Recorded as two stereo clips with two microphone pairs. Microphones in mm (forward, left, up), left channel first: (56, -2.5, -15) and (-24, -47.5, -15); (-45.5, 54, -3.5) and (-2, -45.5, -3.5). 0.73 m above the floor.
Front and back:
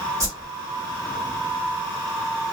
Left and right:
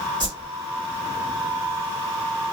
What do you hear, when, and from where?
0.2 s a whoosh: 105° right, 1.9 m